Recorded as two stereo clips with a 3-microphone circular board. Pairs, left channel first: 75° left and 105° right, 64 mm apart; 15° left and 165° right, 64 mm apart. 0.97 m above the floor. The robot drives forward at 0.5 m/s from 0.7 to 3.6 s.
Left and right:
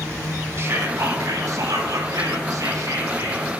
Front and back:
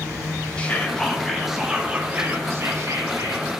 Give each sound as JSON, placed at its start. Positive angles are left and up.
{"t": 0.6, "sound": "whispering", "azimuth_deg": -55, "distance_m": 1.0}